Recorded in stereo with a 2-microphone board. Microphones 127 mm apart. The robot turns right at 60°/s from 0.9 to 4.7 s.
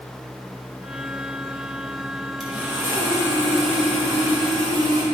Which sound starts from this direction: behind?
Sawing, at 2.4 s.